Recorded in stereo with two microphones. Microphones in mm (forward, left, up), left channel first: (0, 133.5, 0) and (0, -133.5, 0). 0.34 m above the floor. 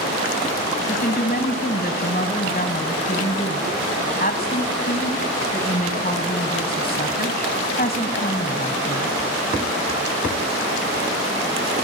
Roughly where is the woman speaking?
Left.